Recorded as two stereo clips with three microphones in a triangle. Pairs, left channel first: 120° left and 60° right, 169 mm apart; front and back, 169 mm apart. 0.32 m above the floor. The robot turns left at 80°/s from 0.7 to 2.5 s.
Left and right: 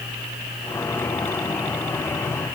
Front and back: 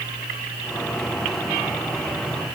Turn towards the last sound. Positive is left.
No sound to turn to.